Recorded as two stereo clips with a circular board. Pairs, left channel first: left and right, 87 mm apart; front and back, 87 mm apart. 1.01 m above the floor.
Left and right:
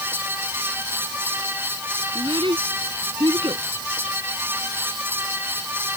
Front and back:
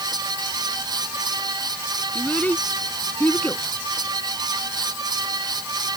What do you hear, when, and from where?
2.1 s a child speaking: 70° right